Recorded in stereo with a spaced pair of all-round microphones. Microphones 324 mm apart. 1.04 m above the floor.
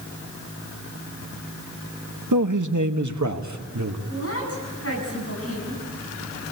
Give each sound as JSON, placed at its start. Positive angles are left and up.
{"t": 2.3, "sound": "a man speaking", "side_deg": -65, "distance_m": 1.2}
{"t": 4.1, "sound": "a woman speaking", "side_deg": 45, "distance_m": 9.5}